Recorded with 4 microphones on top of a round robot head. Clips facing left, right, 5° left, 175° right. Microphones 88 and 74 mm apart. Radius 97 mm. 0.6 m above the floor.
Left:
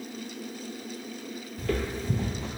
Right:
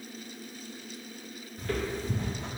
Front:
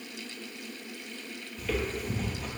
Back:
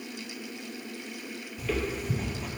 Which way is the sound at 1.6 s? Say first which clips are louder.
Left 2 dB, back 1 dB; 105° left.